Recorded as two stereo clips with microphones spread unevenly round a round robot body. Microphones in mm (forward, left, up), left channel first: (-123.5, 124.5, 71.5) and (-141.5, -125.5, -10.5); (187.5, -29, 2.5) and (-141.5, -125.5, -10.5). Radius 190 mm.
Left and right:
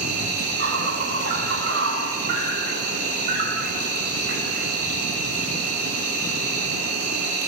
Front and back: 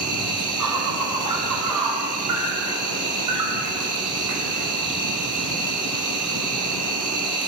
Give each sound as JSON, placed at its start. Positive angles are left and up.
{"t": 0.0, "sound": "an insect", "azimuth_deg": -135, "distance_m": 6.0}